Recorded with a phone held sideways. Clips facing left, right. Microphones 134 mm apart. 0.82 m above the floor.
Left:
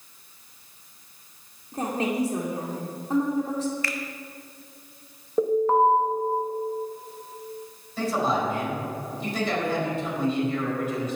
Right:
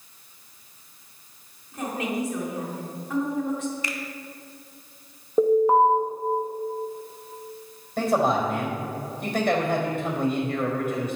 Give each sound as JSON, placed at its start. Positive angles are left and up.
{"t": 1.7, "sound": "a woman speaking", "side_deg": 35, "distance_m": 1.8}
{"t": 3.8, "sound": "a finger snap", "side_deg": -20, "distance_m": 0.9}
{"t": 5.4, "sound": "an alarm", "side_deg": -15, "distance_m": 1.4}
{"t": 8.0, "sound": "a man speaking", "side_deg": -60, "distance_m": 4.0}